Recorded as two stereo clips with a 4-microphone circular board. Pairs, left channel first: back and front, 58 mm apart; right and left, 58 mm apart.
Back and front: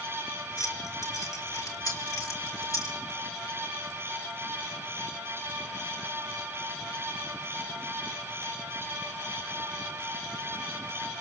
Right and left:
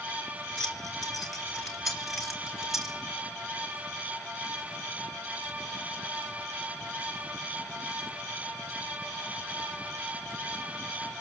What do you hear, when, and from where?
0.6 s keys jangling: 170° right, 3.5 m; by 3.0 s 175° left, 4.5 m